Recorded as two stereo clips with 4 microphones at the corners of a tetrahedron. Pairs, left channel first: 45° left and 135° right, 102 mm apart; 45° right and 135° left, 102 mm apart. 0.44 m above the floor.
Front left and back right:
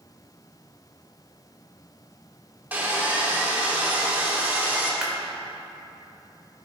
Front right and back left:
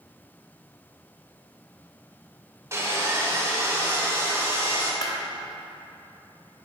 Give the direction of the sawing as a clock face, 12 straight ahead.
7 o'clock.